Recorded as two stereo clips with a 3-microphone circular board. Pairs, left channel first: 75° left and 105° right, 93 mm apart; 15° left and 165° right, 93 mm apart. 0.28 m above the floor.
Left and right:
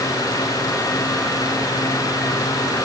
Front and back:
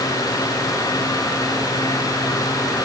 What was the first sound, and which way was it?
Only background noise.